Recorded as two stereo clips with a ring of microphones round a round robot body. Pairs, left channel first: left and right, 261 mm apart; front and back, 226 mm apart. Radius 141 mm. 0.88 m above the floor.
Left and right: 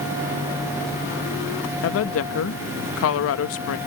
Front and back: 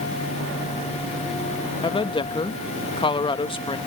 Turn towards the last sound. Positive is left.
turn(degrees=65)